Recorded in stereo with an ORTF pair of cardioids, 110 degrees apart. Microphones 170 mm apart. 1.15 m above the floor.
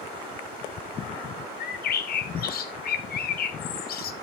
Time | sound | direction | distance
1.6 | a bird | 55° left | 1.4 m